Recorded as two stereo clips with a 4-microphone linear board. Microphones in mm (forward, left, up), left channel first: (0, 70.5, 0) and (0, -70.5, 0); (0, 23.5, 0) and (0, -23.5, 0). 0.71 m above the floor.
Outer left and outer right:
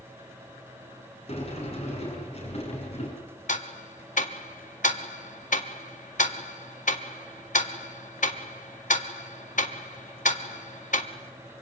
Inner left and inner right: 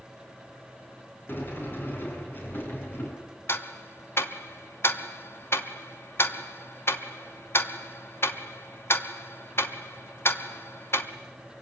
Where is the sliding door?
45° left (ahead or behind), 7 m.